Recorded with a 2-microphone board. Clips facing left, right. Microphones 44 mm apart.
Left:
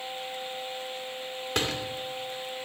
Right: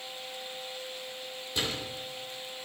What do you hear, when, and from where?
1.6 s a door slam: 60° left (ahead or behind), 2.5 m